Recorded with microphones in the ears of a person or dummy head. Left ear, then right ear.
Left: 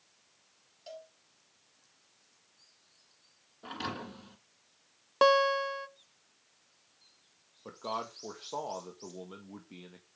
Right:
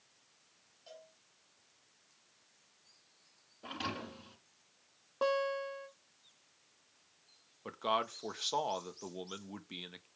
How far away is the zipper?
I don't hear a zipper.